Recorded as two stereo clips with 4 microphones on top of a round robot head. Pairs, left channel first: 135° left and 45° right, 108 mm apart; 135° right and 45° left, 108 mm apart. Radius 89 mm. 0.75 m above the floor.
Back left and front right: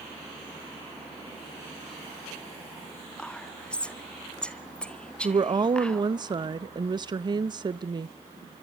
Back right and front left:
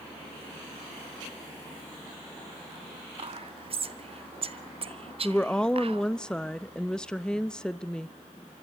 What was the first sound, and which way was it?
Whispering, 55° left.